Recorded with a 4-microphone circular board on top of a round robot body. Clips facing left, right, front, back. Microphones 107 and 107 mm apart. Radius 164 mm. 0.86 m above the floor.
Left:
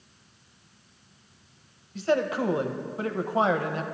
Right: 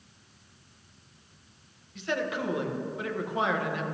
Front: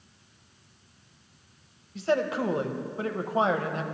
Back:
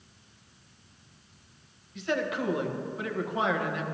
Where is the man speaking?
45° left, 0.9 m.